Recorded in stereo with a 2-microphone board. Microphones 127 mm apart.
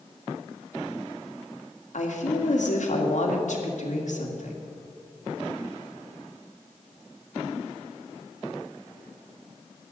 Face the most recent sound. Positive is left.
turn(degrees=75)  # may be behind; listen again after turning